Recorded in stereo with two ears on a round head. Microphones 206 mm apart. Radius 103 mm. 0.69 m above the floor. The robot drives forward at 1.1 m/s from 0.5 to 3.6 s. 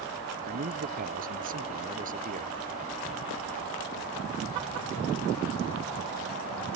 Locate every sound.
0.5 s a man speaking: 45° right (ahead or behind); by 2.5 s 35° right (ahead or behind)